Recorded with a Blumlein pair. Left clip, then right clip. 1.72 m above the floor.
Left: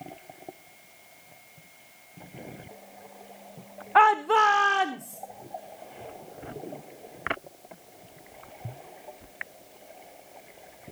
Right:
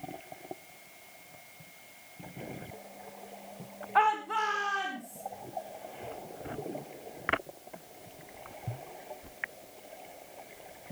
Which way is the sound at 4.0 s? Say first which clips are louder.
Left 8 dB; 65° left.